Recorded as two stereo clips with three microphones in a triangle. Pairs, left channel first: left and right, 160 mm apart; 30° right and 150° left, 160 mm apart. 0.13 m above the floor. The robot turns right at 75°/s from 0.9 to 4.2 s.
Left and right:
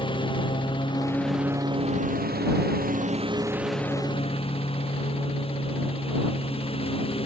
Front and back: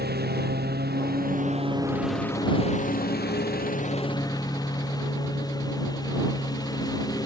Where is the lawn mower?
150° left; by 7.3 s 35° left.